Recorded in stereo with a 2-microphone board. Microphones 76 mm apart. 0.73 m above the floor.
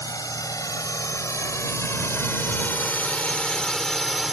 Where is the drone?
60° left (ahead or behind); by 4.3 s 5° right (ahead or behind).